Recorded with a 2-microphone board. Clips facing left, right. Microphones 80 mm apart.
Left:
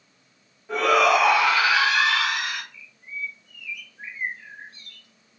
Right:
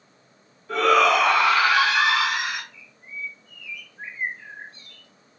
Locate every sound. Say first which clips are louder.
0.7 s a shout: right 1 dB; 20° left (ahead or behind), 1.6 m; by 2.6 s 20° right (ahead or behind), 1.5 m
2.7 s a bird: left 1 dB; 30° right (ahead or behind), 1.4 m